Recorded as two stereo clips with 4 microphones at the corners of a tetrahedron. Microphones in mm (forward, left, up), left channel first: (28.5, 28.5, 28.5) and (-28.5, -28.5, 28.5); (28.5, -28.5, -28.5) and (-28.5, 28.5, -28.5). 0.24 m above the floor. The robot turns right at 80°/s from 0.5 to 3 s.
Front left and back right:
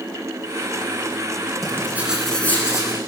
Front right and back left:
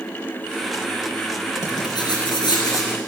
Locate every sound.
1.6 s writing: 95° right, 3 m; by 3.0 s 15° left, 3 m